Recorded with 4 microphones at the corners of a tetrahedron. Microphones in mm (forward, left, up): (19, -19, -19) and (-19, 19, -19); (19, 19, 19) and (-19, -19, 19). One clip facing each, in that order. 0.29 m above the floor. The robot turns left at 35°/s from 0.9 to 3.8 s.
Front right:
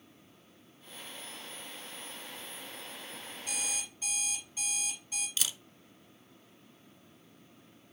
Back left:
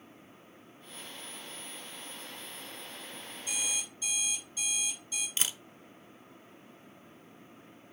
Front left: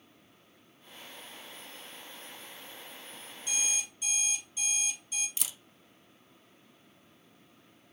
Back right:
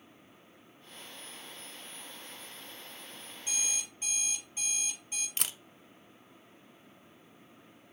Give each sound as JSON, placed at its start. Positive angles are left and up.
{"t": 3.5, "sound": "an alarm clock", "azimuth_deg": -70, "distance_m": 4.0}
{"t": 5.4, "sound": "a camera shutter", "azimuth_deg": -170, "distance_m": 0.6}